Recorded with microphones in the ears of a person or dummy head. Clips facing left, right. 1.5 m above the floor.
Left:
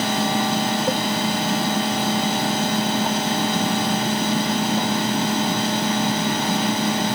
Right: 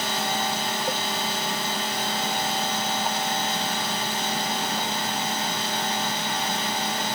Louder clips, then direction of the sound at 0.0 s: Left 7 dB; 60° left (ahead or behind).